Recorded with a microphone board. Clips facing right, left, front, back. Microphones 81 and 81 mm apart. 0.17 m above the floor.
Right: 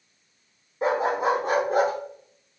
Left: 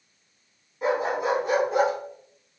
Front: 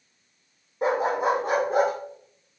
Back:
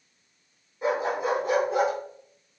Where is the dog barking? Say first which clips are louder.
Right 2 dB, front 3 dB; 30° right, 3.5 m; by 1.9 s 40° right, 4 m.